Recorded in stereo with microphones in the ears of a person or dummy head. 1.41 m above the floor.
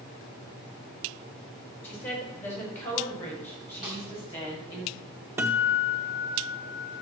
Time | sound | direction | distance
1.8 | a woman speaking | 5° left (ahead or behind) | 5 m
3.8 | a snare drum | 10° right (ahead or behind) | 3.5 m
5.4 | a guitar | 10° right (ahead or behind) | 0.6 m